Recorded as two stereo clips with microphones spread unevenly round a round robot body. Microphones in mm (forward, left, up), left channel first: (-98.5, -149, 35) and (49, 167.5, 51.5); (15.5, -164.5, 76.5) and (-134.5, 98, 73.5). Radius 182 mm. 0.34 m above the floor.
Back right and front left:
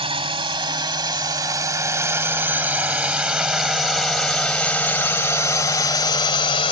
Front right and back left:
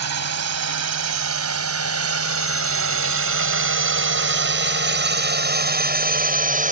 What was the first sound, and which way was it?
A drone, 140° left.